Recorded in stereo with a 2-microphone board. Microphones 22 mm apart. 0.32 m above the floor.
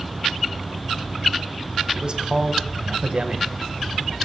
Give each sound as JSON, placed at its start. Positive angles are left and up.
{"t": 1.9, "sound": "a man speaking", "side_deg": -40, "distance_m": 1.3}